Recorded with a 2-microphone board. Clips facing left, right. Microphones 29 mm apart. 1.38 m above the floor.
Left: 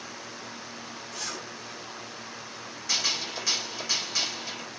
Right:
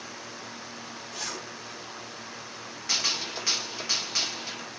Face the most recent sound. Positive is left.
turn(degrees=-25)  # may be behind; listen again after turning